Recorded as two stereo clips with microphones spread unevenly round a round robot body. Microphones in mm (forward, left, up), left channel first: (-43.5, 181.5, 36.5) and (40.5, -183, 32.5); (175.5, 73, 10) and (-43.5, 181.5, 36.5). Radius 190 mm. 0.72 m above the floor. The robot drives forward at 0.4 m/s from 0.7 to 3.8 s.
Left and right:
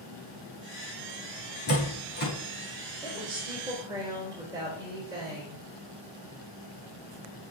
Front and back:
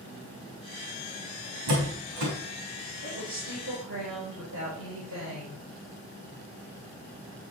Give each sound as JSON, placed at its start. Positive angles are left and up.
{"t": 1.7, "sound": "a door slam", "azimuth_deg": 165, "distance_m": 4.5}
{"t": 3.0, "sound": "a woman speaking", "azimuth_deg": -155, "distance_m": 3.5}